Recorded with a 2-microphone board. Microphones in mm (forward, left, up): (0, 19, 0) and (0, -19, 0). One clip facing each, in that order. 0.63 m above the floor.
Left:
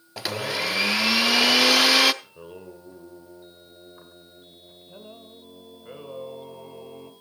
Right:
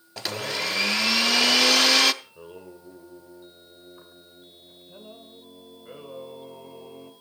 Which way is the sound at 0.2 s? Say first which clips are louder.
Left 2 dB; 5° left (ahead or behind).